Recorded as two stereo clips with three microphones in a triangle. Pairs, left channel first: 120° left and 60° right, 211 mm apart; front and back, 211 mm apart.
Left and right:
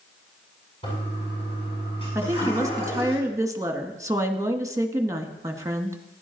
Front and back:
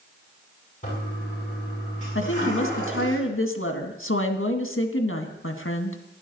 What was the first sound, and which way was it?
A toilet flushing, 55° left.